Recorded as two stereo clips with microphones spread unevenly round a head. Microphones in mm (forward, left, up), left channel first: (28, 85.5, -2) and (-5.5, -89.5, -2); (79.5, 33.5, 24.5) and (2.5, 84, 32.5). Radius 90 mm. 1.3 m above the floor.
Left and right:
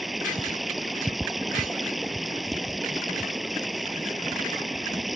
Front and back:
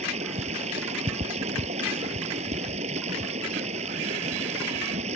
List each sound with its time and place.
0.0 s running water: 170° left